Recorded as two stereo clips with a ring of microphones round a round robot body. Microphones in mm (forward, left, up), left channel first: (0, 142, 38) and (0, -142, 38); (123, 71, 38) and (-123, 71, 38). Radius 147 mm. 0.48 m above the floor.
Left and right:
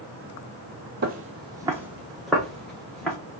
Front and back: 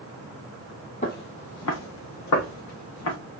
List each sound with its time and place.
1.0 s footsteps: 50° right, 0.6 m; by 3.2 s 5° left, 2 m